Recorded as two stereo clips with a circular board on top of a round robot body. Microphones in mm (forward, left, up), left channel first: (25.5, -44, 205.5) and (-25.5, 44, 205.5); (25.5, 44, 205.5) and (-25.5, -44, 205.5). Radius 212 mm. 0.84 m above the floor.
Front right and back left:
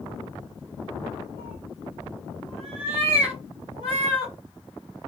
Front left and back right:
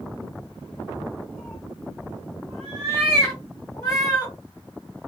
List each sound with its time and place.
1.4 s a cat meowing: 155° left, 3.5 m